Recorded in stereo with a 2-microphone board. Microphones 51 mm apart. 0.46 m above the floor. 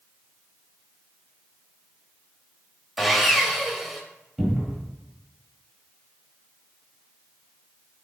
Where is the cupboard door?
5° right (ahead or behind), 1.1 m.